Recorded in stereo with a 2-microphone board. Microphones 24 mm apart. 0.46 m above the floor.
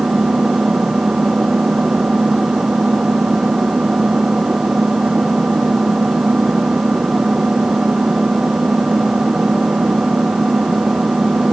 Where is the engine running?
50° right (ahead or behind).